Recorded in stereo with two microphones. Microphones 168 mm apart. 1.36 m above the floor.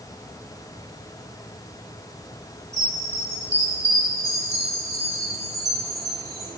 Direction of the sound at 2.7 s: 45° right (ahead or behind).